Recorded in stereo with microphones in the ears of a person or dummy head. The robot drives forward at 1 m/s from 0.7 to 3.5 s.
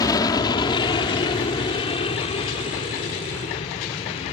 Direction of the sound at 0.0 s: 20° left (ahead or behind).